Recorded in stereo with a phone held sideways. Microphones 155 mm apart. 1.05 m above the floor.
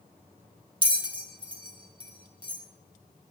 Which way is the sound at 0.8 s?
35° right (ahead or behind).